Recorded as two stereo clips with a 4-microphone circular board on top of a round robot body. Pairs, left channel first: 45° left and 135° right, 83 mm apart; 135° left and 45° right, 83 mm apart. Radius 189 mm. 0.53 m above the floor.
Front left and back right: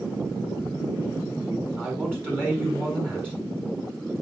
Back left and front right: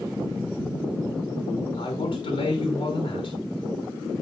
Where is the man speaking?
155° left, 6 m.